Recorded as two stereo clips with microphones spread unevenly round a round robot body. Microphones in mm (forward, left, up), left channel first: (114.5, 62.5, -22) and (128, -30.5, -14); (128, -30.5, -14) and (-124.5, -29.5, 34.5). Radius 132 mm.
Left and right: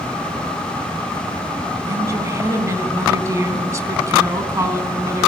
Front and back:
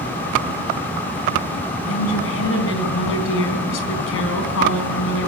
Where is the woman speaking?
25° right, 3.5 m.